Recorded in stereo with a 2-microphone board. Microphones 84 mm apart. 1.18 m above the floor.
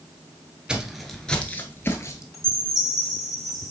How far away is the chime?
About 2.5 m.